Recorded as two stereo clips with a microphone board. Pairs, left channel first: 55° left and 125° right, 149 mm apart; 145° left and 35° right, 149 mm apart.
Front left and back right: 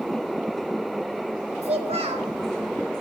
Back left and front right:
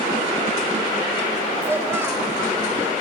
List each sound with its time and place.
1.6 s a child speaking: 100° right, 1.0 m